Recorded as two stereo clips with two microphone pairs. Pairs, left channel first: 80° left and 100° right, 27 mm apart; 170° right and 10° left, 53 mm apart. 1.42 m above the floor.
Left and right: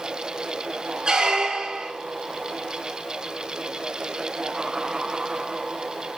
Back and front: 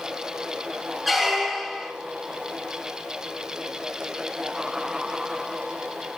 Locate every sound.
1.1 s a squeak: 80° right, 0.6 m